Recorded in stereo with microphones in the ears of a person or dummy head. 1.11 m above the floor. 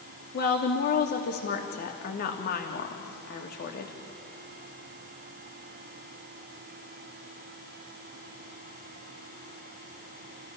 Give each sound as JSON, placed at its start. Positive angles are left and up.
{"t": 0.3, "sound": "a woman speaking", "side_deg": 55, "distance_m": 2.5}